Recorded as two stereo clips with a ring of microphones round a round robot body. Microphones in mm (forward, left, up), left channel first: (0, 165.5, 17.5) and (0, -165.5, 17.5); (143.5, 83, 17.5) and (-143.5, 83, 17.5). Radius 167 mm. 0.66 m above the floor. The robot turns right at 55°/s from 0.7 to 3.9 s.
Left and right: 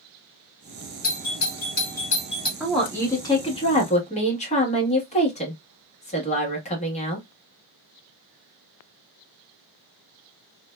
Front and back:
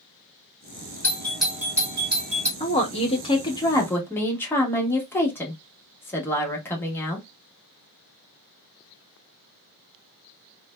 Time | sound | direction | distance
1.0 | a doorbell | 70° left | 1.2 m
2.6 | a woman speaking | 5° right | 1.0 m